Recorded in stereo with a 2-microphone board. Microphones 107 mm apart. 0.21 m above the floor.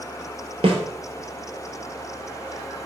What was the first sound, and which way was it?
A snare drum, 60° right (ahead or behind).